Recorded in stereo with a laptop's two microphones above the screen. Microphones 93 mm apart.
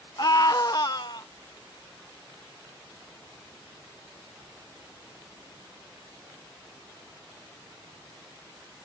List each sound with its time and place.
0.2 s a scream: 45° left (ahead or behind); by 1.3 s 50° left (ahead or behind)